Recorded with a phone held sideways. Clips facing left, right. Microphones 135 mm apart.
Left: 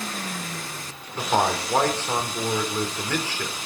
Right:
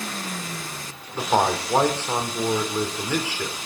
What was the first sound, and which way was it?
A man speaking, 15° right (ahead or behind).